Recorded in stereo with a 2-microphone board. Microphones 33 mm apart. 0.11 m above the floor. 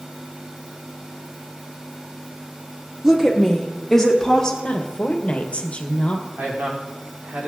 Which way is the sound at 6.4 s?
70° right (ahead or behind).